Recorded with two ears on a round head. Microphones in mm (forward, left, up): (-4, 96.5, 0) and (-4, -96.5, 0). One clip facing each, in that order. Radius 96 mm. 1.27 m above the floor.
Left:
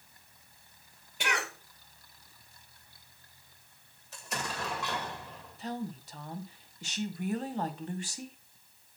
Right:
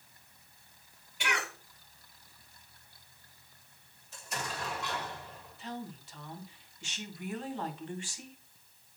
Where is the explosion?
55° left (ahead or behind), 2.5 m.